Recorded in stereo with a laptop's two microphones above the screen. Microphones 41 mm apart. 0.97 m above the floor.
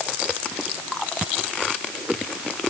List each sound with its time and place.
Only background noise.